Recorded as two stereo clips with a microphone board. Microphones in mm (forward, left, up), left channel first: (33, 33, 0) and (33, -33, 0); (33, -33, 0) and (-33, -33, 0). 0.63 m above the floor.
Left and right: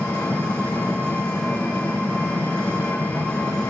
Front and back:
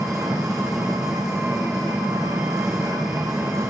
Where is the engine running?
165° left, 6 m.